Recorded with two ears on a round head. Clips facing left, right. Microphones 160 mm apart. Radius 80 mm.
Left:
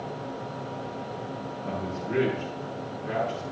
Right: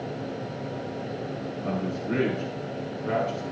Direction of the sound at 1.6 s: 65° right (ahead or behind).